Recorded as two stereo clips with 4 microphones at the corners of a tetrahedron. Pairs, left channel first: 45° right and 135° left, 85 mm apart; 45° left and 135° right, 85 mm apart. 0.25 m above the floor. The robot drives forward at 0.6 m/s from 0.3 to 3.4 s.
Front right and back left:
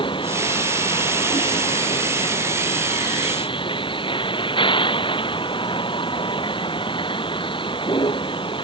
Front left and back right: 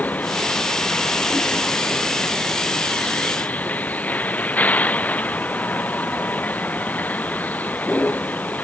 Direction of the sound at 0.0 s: 25° right.